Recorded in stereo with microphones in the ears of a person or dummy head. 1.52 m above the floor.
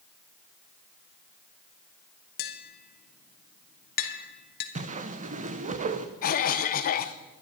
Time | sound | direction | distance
2.4 | tapping | 50° left (ahead or behind) | 1.7 m
4.8 | a whoosh | 35° right (ahead or behind) | 0.8 m
6.2 | a cough | 45° left (ahead or behind) | 0.8 m